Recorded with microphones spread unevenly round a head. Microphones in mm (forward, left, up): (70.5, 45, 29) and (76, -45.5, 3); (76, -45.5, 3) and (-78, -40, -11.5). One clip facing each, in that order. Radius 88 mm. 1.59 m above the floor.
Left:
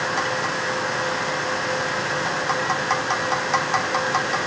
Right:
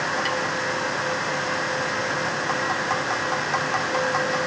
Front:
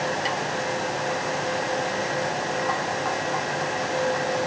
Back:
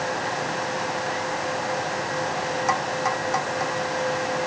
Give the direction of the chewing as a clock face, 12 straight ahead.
No chewing in this recording.